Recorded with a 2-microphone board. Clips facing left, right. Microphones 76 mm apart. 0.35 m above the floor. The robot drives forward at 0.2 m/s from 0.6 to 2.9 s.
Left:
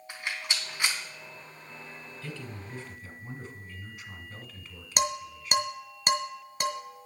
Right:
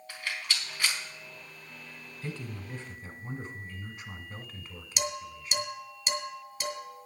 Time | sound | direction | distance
0.1 | a rattle | 20° left (ahead or behind) | 3.5 m
2.2 | a man speaking | 35° right (ahead or behind) | 1.6 m
5.0 | dishes clattering | 50° left (ahead or behind) | 2 m